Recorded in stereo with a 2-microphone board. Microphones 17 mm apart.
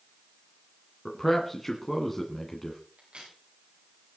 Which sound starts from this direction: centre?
A man speaking, at 1.1 s.